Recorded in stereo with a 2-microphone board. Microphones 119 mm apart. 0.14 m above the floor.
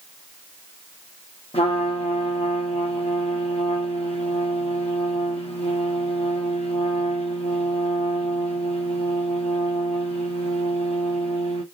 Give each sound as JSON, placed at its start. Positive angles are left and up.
{"t": 1.5, "sound": "a trumpet", "side_deg": 55, "distance_m": 1.2}